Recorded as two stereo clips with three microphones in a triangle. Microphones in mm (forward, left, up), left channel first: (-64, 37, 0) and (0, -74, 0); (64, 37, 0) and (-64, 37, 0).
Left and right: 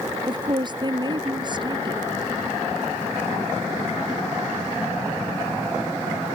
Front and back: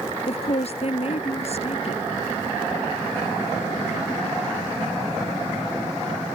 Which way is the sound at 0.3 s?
15° right.